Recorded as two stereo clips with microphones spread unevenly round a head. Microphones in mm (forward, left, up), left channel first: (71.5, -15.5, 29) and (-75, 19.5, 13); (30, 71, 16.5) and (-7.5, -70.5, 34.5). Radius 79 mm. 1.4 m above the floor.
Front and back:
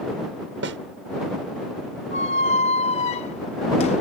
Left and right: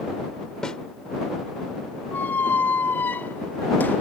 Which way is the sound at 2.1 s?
5° right.